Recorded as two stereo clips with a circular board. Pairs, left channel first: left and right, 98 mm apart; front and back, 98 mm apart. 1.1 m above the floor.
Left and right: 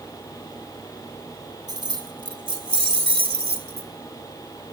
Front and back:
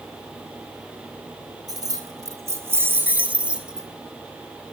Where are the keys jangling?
130° right, 2.5 m; by 3.9 s 95° right, 2.5 m.